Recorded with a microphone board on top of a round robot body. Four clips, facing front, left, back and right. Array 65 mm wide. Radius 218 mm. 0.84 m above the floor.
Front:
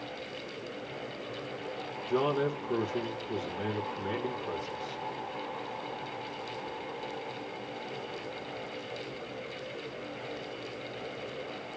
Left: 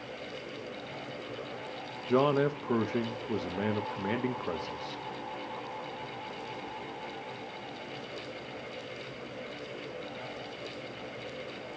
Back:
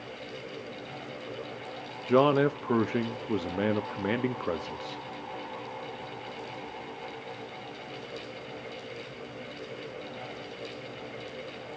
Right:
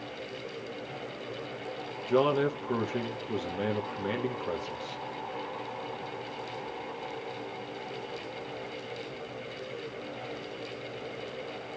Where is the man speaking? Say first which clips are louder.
Even, back 6 dB; 170° left, 1.1 m.